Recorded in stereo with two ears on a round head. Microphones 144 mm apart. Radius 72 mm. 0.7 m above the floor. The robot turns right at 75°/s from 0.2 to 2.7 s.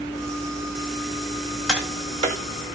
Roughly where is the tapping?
Centre.